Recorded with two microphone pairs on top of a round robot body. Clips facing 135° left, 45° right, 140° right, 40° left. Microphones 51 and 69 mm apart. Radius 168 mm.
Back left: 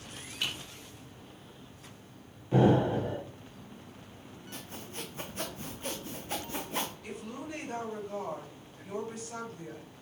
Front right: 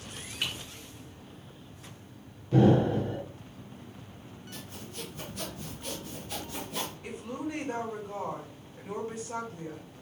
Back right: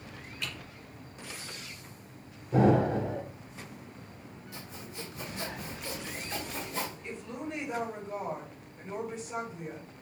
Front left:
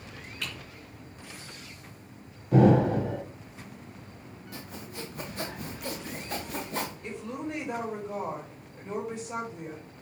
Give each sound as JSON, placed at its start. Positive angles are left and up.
{"t": 0.4, "sound": "typing on a keyboard", "azimuth_deg": 25, "distance_m": 4.0}
{"t": 2.5, "sound": "an explosion", "azimuth_deg": 70, "distance_m": 2.5}
{"t": 4.5, "sound": "sawing", "azimuth_deg": 75, "distance_m": 1.1}
{"t": 7.0, "sound": "a woman speaking", "azimuth_deg": 20, "distance_m": 4.0}